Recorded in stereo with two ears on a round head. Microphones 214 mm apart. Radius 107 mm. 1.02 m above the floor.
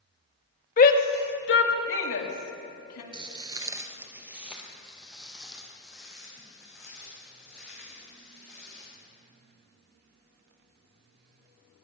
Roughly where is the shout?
Left.